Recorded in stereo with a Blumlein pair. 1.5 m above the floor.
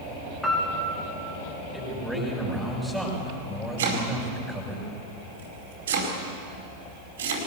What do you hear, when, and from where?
0.4 s a piano: 10° left, 4 m
1.7 s a man speaking: 5° left, 7 m
3.8 s chopping: 60° right, 5 m